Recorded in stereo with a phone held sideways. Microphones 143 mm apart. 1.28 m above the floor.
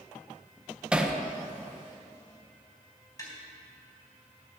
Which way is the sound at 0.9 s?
5° right (ahead or behind).